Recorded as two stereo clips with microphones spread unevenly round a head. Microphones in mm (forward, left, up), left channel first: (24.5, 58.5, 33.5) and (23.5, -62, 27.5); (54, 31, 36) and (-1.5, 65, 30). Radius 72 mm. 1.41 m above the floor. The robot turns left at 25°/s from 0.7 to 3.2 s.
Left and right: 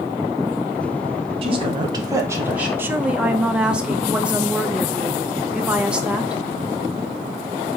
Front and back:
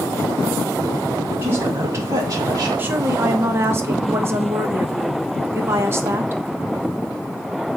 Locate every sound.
1.4 s a woman speaking: 140° right, 0.9 m; by 2.7 s 170° right, 0.9 m
2.8 s a woman speaking: 160° right, 0.5 m; by 6.4 s 170° right, 0.5 m